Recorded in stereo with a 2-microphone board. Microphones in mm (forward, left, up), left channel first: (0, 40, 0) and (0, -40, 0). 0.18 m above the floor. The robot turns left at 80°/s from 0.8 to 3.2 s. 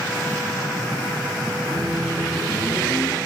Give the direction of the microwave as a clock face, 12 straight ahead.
4 o'clock.